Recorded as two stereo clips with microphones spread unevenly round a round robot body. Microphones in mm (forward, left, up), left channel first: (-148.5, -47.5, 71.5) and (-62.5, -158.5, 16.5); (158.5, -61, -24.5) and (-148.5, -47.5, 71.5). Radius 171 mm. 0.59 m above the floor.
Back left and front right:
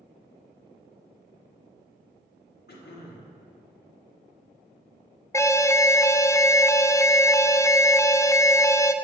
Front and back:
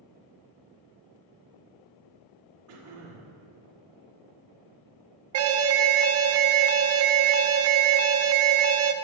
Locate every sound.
2.7 s throat clearing: 135° left, 1.3 m
5.3 s an alarm: 140° right, 0.6 m